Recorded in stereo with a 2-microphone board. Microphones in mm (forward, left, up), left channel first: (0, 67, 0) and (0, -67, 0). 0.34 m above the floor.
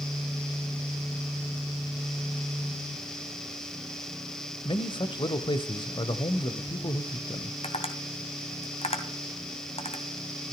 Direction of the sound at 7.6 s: 55° left (ahead or behind).